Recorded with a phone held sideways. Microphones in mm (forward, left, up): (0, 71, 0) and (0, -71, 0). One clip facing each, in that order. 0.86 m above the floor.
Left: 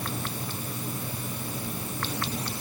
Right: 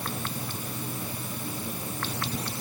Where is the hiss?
No hiss in this recording.